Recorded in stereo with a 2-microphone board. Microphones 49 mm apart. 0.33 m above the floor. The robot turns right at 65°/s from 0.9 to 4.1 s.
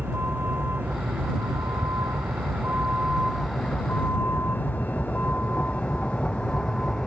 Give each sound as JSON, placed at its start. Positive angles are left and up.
{"t": 0.0, "sound": "a vehicle", "side_deg": -40}